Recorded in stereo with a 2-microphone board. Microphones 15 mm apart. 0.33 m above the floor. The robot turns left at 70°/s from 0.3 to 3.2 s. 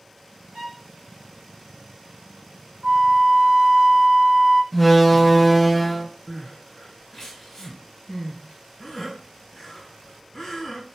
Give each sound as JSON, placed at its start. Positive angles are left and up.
{"t": 0.5, "sound": "a violin", "side_deg": -80, "distance_m": 0.8}
{"t": 2.8, "sound": "a flute", "side_deg": -55, "distance_m": 0.5}
{"t": 4.7, "sound": "a door slam", "side_deg": -5, "distance_m": 0.5}
{"t": 6.3, "sound": "crying", "side_deg": 20, "distance_m": 1.4}